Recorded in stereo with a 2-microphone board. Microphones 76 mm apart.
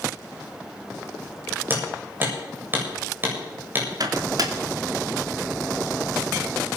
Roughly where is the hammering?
Right.